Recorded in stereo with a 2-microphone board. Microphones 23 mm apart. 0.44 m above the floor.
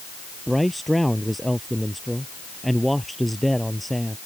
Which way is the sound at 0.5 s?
5° left (ahead or behind).